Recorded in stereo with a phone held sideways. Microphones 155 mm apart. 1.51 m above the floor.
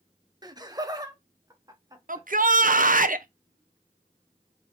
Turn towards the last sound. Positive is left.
turn(degrees=-60)  # may be behind; listen again after turning